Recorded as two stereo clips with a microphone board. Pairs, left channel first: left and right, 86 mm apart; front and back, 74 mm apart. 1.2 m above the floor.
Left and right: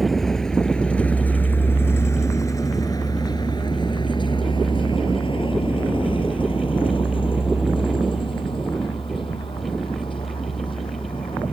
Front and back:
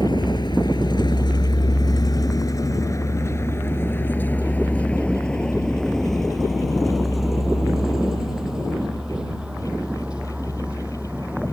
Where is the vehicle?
Straight ahead; by 11.5 s 105° left.